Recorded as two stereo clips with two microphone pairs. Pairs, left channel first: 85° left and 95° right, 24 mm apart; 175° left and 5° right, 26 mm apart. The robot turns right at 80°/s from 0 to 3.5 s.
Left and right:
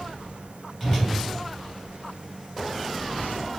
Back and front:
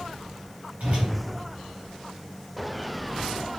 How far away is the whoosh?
About 1.4 m.